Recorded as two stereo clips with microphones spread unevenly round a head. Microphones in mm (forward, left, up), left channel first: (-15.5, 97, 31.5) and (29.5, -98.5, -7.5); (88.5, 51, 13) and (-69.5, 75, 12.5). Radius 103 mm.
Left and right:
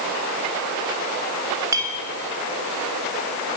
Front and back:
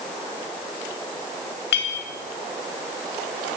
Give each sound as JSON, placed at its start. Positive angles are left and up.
{"t": 1.7, "sound": "a clink", "azimuth_deg": -5, "distance_m": 3.5}